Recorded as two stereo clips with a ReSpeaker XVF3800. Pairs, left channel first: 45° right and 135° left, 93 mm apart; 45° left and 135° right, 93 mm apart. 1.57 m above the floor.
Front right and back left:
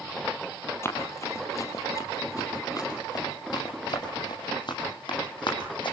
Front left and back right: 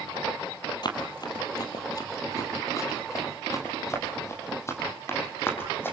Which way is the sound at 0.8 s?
15° left.